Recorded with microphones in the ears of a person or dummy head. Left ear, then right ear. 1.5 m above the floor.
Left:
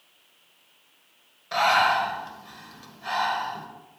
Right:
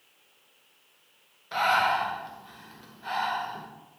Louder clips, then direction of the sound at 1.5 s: Left 3 dB; 15° left (ahead or behind).